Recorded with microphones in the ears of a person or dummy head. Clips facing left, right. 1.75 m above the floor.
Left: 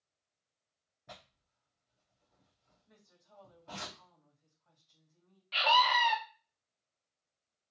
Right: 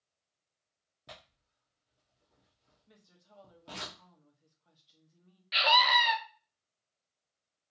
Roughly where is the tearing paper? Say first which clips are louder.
Even; right.